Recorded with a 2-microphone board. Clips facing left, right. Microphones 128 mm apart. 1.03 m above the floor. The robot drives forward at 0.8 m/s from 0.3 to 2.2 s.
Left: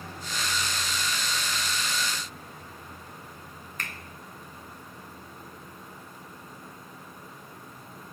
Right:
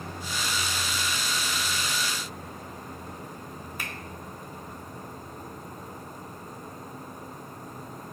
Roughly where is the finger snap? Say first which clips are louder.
Even; centre.